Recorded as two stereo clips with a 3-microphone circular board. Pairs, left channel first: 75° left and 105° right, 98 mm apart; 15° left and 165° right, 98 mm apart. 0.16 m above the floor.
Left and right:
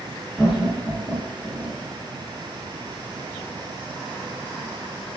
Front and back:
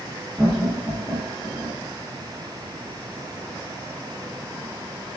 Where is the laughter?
105° left, 1.2 m; by 1.8 s 165° right, 1.3 m.